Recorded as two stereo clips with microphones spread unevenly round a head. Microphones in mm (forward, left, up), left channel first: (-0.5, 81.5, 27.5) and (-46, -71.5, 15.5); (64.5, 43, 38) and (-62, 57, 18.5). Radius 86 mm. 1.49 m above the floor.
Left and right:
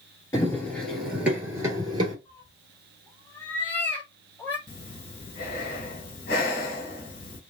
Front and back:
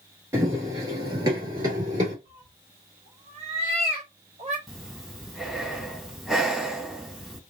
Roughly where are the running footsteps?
Left.